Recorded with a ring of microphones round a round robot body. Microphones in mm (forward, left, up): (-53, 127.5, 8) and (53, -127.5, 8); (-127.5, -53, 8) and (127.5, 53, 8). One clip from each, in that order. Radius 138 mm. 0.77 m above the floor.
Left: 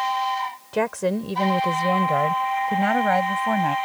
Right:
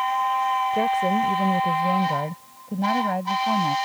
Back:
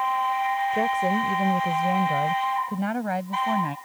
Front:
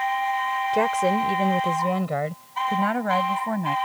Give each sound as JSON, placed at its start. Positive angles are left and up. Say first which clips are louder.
{"t": 0.7, "sound": "a woman speaking", "louder": "right 3 dB, front 2 dB", "azimuth_deg": 65}